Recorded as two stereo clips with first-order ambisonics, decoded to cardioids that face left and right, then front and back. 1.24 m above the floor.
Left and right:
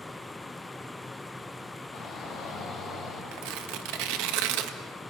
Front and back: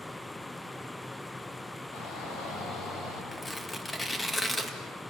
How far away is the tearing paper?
About 1.8 m.